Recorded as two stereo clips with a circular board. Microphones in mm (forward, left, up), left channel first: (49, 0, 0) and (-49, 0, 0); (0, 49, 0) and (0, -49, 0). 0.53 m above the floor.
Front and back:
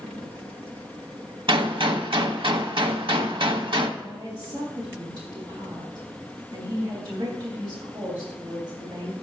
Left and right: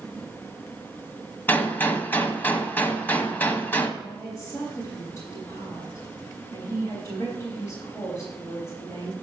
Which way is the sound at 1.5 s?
160° left.